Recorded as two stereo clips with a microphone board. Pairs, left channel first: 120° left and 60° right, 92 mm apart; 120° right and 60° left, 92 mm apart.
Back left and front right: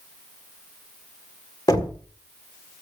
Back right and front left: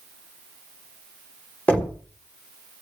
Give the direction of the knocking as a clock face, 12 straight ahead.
6 o'clock.